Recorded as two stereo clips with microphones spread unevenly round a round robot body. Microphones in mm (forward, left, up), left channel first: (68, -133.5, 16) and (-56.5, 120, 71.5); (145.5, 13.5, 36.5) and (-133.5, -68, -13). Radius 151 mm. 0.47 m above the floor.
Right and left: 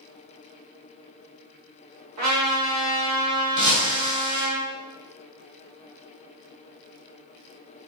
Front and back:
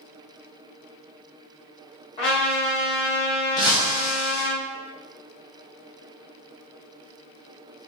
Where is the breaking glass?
90° left, 1.9 m.